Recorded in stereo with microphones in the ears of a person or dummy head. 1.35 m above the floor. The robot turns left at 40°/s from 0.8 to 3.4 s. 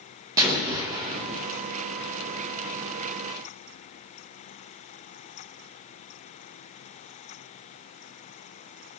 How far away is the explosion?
About 0.7 m.